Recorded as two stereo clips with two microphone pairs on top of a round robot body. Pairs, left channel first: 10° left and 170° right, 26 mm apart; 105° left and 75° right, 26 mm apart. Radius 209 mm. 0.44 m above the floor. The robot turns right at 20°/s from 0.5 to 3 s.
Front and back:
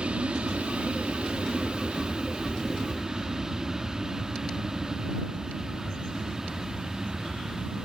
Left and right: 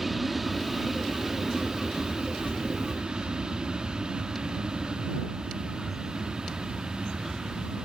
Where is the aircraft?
155° right; by 7.8 s 105° right.